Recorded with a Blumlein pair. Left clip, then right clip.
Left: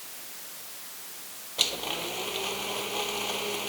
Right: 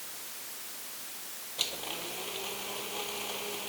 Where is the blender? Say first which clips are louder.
Left 7 dB; 20° left.